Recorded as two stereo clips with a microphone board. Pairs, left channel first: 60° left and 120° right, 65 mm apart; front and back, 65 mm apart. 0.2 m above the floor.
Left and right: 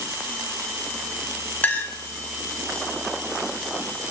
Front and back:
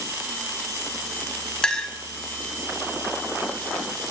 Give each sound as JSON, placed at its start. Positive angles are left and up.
{"t": 1.6, "sound": "a clink", "azimuth_deg": 60, "distance_m": 0.9}